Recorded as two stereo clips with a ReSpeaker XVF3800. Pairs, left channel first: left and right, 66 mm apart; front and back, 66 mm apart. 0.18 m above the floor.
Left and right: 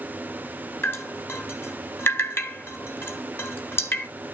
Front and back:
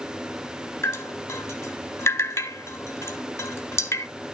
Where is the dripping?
40° left, 1.3 m.